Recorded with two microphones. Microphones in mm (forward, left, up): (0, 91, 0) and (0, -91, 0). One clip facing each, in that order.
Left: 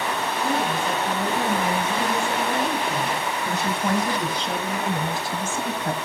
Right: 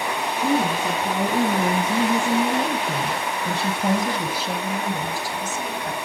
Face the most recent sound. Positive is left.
turn(degrees=40)  # may be behind; listen again after turning